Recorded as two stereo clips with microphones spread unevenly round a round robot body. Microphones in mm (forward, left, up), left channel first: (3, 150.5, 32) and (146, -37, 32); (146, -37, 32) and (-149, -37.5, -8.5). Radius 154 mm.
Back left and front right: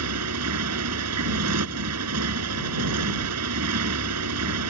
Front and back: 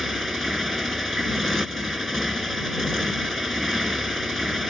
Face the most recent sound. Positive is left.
turn(degrees=-90)